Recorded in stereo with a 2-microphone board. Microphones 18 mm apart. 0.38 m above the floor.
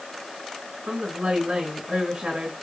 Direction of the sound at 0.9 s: 75° right (ahead or behind).